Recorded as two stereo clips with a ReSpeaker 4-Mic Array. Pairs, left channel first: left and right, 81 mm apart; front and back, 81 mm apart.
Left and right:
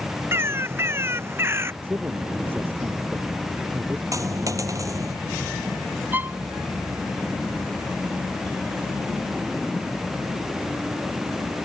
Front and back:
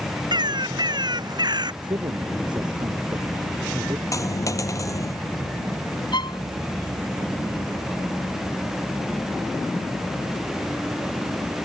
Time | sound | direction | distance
0.3 | a bird | 150° right | ?
1.8 | a man speaking | 155° right | ?
4.1 | a dropped coin | 45° right | ?
6.1 | a violin | 25° right | ?